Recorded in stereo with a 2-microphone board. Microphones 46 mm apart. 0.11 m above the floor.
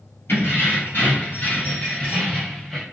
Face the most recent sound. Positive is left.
turn(degrees=5)  # may be behind; listen again after turning